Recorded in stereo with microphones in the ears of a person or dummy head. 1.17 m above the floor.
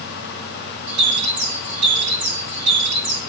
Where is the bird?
65° right (ahead or behind), 3 m.